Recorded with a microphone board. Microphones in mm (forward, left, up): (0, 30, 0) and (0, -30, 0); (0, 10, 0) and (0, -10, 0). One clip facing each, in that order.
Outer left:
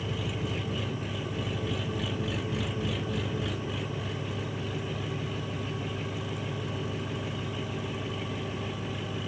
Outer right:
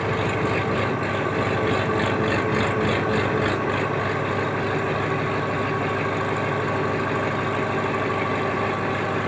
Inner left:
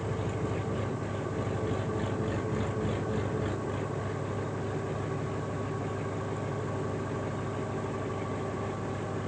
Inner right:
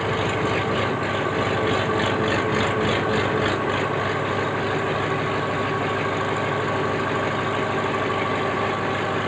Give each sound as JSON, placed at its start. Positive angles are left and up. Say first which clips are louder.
{"t": 0.0, "sound": "an engine running", "louder": "outer right 11 dB, inner right 11 dB", "side_deg": -70}